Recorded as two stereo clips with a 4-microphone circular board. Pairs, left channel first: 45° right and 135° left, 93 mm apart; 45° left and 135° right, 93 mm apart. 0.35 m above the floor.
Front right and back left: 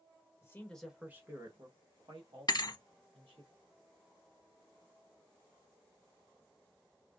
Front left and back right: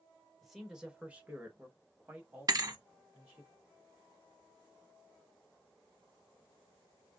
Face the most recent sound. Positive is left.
turn(degrees=-85)